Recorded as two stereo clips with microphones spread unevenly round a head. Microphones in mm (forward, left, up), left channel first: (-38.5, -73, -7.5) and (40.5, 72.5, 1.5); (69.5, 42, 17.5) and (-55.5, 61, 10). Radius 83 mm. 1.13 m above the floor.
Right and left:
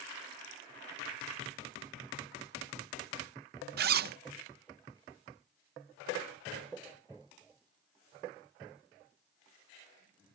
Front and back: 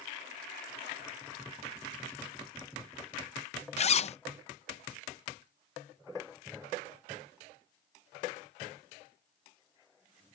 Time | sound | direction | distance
3.8 | a zipper | 30° left | ?